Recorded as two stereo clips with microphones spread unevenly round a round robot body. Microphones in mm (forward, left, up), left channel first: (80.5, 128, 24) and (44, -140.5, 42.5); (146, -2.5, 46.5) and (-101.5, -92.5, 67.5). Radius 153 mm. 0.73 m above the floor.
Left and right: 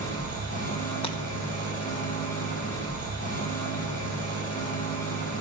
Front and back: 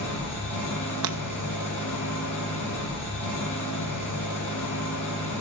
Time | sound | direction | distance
0.0 | an engine running | 20° left | 6.5 m
1.0 | breaking glass | 155° left | 0.6 m